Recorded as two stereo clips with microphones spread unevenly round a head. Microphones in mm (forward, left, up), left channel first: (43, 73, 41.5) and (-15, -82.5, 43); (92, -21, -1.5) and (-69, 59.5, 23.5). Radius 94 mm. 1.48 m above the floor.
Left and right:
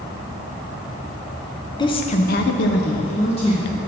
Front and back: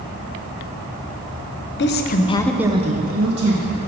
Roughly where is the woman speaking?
Ahead.